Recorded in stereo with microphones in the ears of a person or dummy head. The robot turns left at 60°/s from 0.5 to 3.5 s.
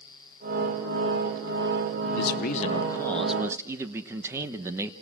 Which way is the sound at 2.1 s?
70° left.